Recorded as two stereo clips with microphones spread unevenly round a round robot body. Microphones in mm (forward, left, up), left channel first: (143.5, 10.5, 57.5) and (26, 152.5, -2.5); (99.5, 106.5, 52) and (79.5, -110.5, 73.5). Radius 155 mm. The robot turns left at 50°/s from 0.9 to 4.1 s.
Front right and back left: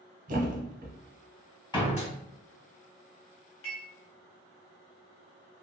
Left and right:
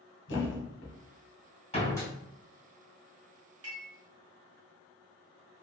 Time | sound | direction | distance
0.3 | a thud | 100° left | 0.8 m
1.7 | a door slam | 25° left | 1.9 m
3.6 | dishes clattering | 75° right | 1.6 m